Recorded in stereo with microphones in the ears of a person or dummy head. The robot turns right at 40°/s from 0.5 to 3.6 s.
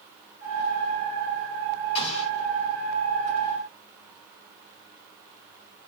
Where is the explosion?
35° left (ahead or behind), 2 m; by 2.3 s 45° left (ahead or behind), 2 m.